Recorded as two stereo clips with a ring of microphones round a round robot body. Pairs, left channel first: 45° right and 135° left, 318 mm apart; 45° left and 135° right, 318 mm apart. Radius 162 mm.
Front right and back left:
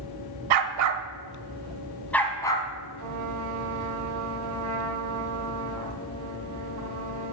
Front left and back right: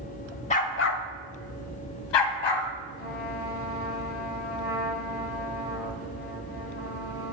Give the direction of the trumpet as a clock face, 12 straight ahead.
9 o'clock.